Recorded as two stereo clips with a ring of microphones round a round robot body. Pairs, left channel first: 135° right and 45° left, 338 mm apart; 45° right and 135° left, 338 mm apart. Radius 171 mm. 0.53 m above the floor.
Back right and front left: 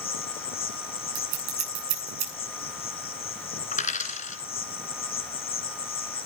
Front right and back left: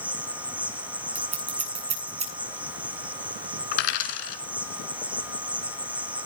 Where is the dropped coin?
65° right, 2.5 m.